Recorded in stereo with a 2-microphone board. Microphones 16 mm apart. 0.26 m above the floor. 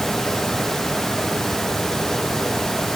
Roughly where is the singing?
I don't hear singing.